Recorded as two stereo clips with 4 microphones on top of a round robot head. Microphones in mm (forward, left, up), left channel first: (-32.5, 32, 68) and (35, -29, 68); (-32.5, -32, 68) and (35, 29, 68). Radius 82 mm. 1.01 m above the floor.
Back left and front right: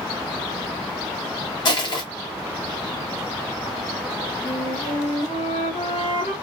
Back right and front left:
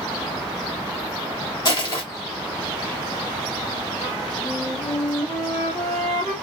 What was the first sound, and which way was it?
Crushing, straight behind.